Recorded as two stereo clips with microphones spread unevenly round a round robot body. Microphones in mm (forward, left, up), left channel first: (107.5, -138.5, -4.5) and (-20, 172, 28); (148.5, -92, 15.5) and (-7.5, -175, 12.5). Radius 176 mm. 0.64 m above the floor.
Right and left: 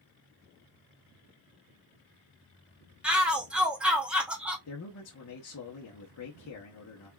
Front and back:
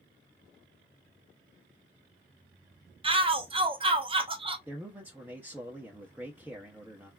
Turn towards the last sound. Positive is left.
turn(degrees=-75)